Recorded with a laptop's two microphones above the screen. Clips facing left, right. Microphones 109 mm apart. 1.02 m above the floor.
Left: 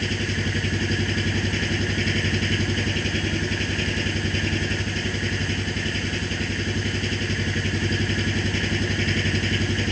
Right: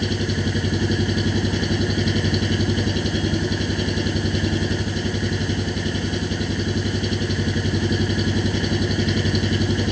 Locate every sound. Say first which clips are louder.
0.0 s an engine running: right 4 dB; 20° right (ahead or behind)